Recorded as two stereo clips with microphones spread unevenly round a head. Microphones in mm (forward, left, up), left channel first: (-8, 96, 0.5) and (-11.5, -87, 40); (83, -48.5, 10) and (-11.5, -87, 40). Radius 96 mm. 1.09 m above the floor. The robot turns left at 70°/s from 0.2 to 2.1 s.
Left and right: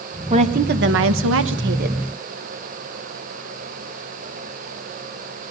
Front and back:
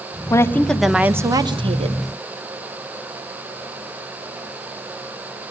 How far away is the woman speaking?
About 1.1 m.